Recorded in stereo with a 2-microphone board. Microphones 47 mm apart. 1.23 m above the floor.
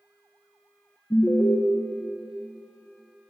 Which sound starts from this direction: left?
An alarm, at 1.1 s.